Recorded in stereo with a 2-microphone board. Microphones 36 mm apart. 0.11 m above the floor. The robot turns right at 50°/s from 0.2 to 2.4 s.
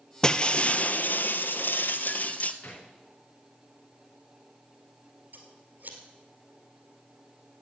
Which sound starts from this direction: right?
Scissors, at 5.3 s.